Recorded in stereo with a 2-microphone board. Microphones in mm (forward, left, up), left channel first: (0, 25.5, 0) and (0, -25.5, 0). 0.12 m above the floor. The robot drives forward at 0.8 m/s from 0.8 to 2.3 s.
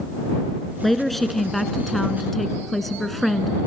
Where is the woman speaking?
Centre (ahead or behind), 1.4 m; by 3.5 s 5° left (ahead or behind), 1.2 m.